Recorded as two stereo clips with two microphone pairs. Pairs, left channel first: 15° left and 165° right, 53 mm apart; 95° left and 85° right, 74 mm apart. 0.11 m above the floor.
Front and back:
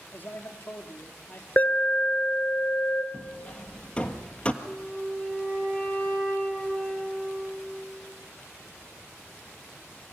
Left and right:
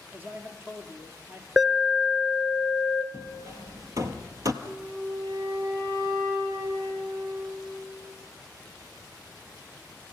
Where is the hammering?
50° right, 1.4 m.